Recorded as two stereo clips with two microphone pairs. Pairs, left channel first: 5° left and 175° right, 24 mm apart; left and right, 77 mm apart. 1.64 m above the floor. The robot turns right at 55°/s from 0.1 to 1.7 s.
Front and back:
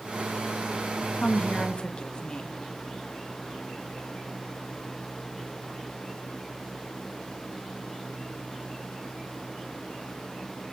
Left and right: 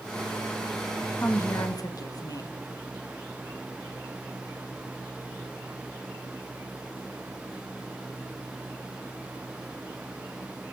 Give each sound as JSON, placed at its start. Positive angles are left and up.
{"t": 1.2, "sound": "a woman speaking", "azimuth_deg": 25, "distance_m": 2.0}